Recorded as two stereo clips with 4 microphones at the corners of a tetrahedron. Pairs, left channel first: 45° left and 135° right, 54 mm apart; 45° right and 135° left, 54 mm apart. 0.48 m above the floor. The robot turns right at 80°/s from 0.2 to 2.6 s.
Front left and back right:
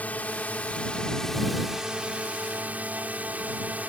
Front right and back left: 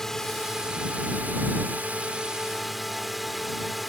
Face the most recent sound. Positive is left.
turn(degrees=-135)